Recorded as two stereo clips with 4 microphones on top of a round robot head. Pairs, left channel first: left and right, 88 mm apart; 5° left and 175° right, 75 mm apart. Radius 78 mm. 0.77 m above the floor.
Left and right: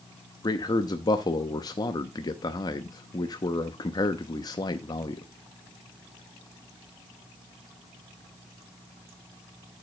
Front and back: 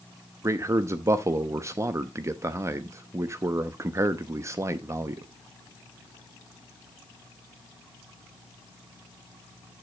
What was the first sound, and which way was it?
A man speaking, 135° left.